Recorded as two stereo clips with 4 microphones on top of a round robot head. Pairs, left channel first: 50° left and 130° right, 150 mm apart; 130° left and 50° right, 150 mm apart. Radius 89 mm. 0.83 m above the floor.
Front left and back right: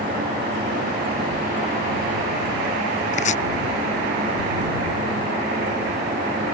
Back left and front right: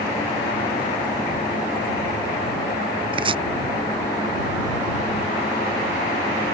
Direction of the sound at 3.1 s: 5° left.